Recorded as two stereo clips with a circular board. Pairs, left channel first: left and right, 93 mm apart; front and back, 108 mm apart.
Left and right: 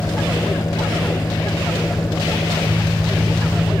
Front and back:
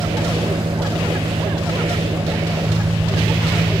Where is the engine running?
140° left.